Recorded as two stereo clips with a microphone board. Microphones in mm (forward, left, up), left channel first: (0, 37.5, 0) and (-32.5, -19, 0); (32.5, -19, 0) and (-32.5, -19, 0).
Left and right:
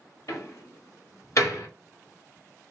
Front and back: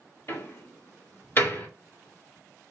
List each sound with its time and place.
0.3 s a door slam: 45° left, 1.7 m